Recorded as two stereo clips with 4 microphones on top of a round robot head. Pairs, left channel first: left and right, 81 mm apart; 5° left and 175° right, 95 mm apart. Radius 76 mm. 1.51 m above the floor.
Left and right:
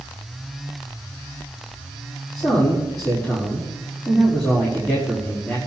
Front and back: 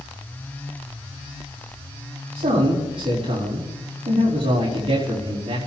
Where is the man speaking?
155° left, 4.5 m.